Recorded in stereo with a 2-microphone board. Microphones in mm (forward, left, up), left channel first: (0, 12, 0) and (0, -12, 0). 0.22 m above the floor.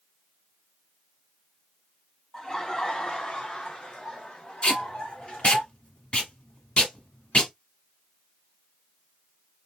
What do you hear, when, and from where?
2.3 s laughter: 30° left (ahead or behind), 1.3 m; by 5.6 s 70° left (ahead or behind), 3 m
4.6 s tape being pulled: 50° left (ahead or behind), 1.0 m